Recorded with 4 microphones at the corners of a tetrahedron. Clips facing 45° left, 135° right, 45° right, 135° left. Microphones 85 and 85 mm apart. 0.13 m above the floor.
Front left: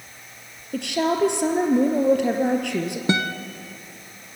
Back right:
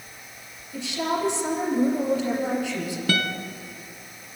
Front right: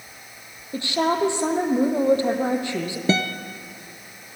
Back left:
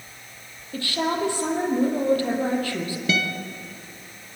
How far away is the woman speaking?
About 3 m.